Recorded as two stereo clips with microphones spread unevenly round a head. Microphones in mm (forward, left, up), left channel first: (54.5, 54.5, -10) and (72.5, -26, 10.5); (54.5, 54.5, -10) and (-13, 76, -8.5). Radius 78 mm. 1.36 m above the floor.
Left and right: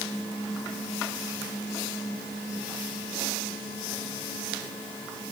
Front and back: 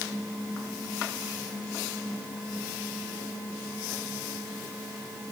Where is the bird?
I don't hear a bird.